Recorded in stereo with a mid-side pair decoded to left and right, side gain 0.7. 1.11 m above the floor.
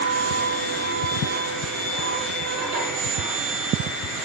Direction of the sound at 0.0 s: 70° right.